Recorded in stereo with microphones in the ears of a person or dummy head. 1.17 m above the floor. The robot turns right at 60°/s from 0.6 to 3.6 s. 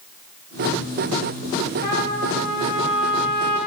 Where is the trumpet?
150° left, 3 m; by 3.6 s 105° right, 3 m.